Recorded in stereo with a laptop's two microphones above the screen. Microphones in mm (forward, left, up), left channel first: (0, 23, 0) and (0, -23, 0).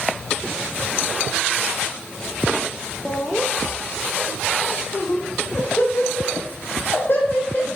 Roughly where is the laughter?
Centre.